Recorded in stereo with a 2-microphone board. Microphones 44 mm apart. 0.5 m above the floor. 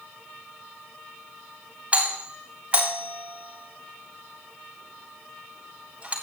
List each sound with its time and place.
1.9 s a doorbell: 30° right (ahead or behind), 3.5 m